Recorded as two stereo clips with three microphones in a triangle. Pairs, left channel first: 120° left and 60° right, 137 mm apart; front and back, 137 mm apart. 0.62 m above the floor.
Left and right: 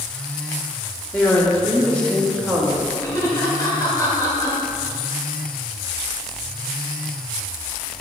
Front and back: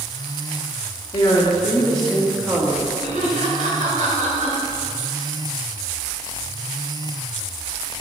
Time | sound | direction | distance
1.1 | a woman speaking | 45° left | 1.6 m
3.0 | laughter | 175° right | 2.5 m